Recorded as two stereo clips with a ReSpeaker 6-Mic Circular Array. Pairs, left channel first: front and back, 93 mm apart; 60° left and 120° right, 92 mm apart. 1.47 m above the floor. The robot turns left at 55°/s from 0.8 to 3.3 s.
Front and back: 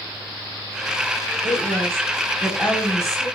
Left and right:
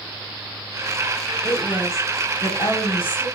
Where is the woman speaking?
145° left, 1.1 m; by 3.2 s 45° left, 1.1 m.